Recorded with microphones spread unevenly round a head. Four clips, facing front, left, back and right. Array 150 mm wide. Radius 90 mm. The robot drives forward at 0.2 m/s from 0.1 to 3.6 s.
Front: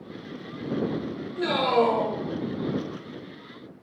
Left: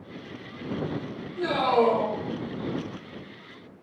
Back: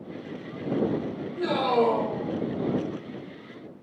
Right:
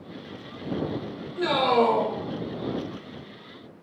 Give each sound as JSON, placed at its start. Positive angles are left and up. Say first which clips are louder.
{"t": 1.4, "sound": "a man speaking", "louder": "right 1 dB, front 1 dB", "azimuth_deg": -35, "distance_m": 1.1}